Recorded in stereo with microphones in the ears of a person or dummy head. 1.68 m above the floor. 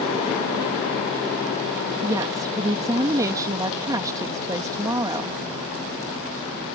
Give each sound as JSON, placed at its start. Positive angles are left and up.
{"t": 2.0, "sound": "a woman speaking", "side_deg": -15}